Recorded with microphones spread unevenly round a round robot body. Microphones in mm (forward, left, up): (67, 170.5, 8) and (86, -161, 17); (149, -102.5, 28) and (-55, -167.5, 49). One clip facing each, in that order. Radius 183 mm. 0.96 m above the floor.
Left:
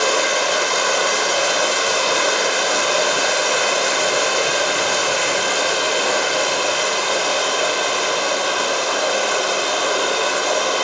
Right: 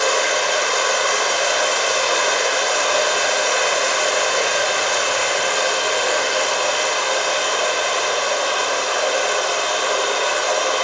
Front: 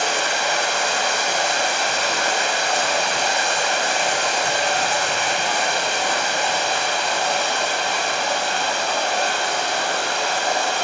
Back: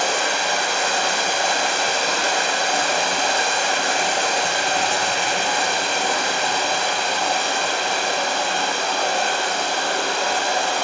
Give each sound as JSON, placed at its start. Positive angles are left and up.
{"t": 0.0, "sound": "running water", "azimuth_deg": 145, "distance_m": 7.5}